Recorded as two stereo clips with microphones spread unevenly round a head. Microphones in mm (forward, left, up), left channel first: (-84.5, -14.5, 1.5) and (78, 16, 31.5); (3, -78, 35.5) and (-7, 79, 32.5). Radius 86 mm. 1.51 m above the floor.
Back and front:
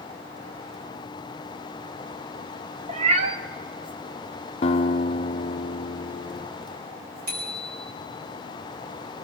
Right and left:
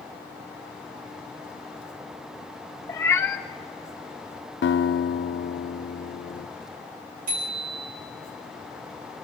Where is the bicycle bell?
50° left, 5 m.